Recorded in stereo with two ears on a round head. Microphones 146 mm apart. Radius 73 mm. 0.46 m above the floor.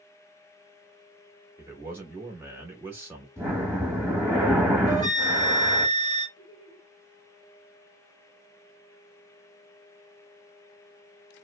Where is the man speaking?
10° right (ahead or behind), 0.8 m.